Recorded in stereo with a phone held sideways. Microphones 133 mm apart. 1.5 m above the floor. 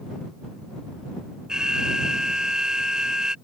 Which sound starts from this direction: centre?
An alarm, at 1.5 s.